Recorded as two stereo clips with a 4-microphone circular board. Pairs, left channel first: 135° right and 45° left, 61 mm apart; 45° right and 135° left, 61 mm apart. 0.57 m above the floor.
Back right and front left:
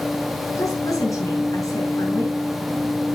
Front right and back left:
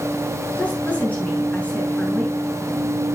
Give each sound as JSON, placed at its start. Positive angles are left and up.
{"t": 0.6, "sound": "a woman speaking", "azimuth_deg": -110, "distance_m": 5.0}